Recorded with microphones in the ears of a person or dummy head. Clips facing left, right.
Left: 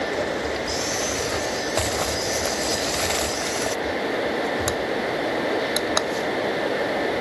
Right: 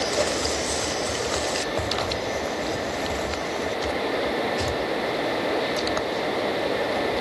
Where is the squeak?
No squeak in this recording.